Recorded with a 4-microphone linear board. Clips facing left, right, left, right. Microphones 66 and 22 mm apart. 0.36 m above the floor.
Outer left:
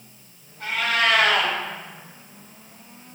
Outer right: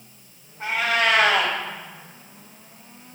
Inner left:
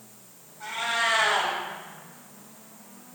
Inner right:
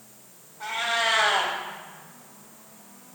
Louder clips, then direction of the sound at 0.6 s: Outer right 1 dB, inner right 1 dB; 25° right (ahead or behind).